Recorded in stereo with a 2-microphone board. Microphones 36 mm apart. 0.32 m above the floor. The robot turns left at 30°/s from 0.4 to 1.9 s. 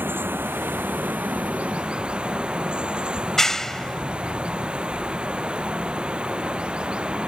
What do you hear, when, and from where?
0.0 s running water: 105° right; by 7.3 s 150° right
3.2 s a clap: 15° left (ahead or behind)